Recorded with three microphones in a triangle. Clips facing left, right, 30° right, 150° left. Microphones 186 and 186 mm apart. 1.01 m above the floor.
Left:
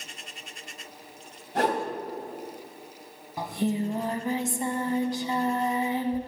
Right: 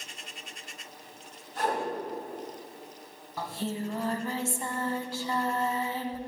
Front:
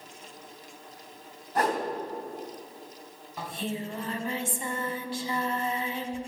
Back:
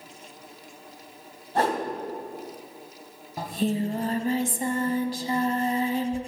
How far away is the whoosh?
About 2.5 m.